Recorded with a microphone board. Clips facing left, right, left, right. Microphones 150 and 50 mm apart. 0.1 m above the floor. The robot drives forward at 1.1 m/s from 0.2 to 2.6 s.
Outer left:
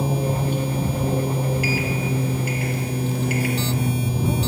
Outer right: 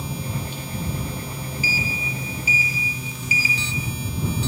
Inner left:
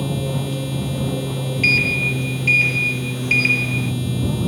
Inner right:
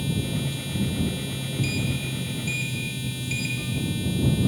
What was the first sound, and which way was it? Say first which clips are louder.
An aircraft: outer left 8 dB, inner left 5 dB; 55° left (ahead or behind).